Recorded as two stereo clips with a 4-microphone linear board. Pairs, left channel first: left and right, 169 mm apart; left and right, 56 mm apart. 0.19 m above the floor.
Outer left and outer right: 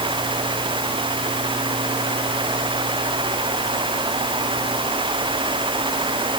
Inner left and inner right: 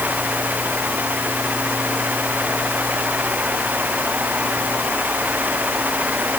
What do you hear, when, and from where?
Only background noise.